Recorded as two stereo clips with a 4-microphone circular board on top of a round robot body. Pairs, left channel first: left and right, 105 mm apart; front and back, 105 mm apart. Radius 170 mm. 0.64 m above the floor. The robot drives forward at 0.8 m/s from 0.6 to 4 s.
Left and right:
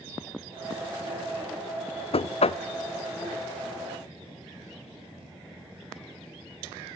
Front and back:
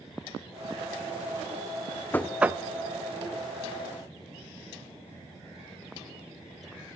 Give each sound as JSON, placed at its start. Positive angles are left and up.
{"t": 2.1, "sound": "knocking", "azimuth_deg": 70, "distance_m": 0.5}